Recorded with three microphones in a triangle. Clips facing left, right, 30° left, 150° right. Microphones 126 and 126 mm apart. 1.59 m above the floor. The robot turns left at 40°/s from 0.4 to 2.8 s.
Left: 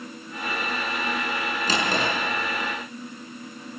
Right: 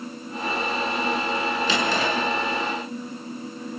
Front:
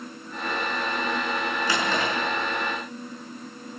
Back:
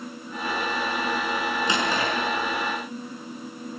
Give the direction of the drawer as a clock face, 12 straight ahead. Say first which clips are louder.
Left 1 dB, even; 7 o'clock.